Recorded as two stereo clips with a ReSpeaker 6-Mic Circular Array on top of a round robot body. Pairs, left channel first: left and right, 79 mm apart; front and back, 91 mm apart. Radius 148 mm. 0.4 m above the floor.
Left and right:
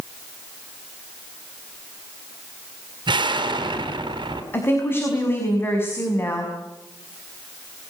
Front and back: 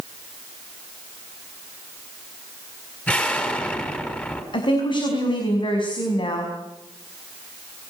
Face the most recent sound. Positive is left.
turn(degrees=30)